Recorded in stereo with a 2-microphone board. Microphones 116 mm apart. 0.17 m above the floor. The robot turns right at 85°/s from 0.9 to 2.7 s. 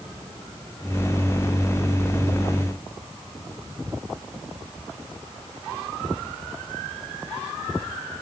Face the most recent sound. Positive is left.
No sound to turn to.